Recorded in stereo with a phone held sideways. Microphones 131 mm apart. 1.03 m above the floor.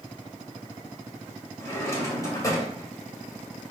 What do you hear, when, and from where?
1.6 s a drawer: 20° left (ahead or behind), 2.5 m